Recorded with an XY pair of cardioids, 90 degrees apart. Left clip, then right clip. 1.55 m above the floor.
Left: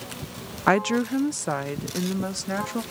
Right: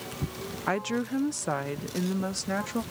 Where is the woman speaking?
70° left; by 2.8 s 5° left.